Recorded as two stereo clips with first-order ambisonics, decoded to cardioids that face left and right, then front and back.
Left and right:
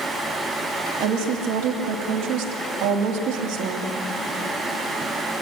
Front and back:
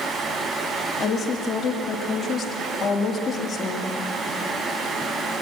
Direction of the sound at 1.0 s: 75° right.